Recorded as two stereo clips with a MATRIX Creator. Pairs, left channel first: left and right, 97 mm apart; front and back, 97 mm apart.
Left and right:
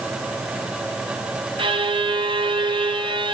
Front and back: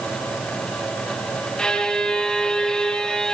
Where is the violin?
80° right, 0.7 m.